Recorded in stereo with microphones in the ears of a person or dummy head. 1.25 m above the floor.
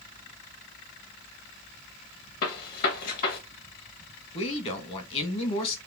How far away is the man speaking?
About 1.4 m.